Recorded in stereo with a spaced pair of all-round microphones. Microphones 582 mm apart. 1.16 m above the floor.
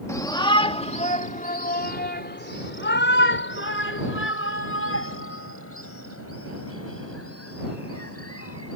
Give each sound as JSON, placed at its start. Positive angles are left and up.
{"t": 0.1, "sound": "a shout", "side_deg": 5}